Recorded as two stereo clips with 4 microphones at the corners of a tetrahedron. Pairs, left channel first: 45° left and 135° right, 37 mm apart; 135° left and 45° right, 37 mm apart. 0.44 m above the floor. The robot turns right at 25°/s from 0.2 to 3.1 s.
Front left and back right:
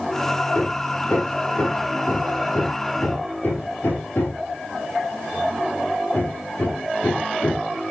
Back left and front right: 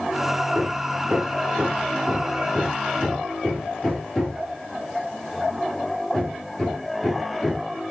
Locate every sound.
0.5 s hammering: 5° right, 8 m; by 7.7 s 55° left, 8 m